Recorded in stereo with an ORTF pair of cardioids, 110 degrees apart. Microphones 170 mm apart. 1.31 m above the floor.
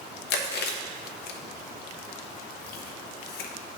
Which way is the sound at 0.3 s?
65° left.